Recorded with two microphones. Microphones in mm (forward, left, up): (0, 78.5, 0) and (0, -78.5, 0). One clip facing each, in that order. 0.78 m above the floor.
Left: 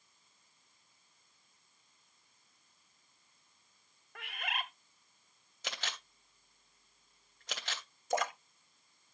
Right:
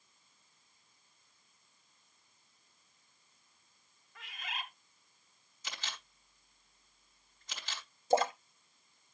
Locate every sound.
4.2 s a bird: 65° left (ahead or behind), 0.9 m
5.6 s a camera shutter: 75° left (ahead or behind), 2 m
8.1 s a splash: 30° right (ahead or behind), 0.7 m